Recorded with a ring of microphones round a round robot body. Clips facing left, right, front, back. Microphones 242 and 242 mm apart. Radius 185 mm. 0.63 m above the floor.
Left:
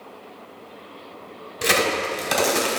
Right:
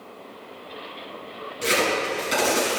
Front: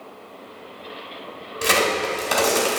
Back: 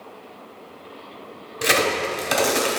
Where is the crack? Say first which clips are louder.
Left 1 dB, even; 100° left, 2 m.